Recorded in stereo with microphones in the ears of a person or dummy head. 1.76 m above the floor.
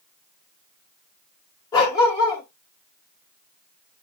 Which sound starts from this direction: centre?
A dog barking, at 1.7 s.